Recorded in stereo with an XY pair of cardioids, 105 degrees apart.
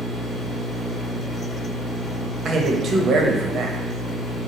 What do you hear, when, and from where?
0.0 s a machine running: 50° left, 1.5 m
2.5 s a man speaking: 50° right, 1.0 m